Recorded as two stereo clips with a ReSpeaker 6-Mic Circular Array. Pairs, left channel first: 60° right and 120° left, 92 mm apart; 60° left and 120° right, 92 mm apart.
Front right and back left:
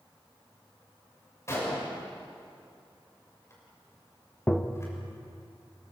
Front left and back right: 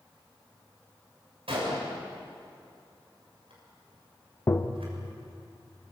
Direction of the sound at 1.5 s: 120° right.